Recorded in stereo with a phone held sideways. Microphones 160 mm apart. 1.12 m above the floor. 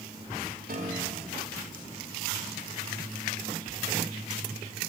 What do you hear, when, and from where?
0.7 s a piano: 65° right (ahead or behind), 3 m